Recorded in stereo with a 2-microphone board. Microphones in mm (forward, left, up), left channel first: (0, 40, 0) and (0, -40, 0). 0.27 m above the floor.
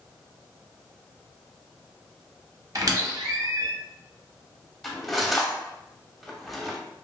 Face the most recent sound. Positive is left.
turn(degrees=0)  # may be behind; listen again after turning